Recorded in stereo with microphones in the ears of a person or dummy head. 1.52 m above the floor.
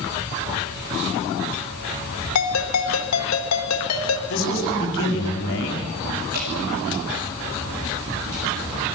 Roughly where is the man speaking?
Left.